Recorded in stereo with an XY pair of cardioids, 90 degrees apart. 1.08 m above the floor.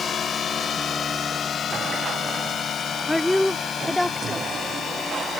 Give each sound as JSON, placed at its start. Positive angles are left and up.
{"t": 0.0, "sound": "a drone", "azimuth_deg": 60}
{"t": 3.1, "sound": "a woman speaking", "azimuth_deg": 10}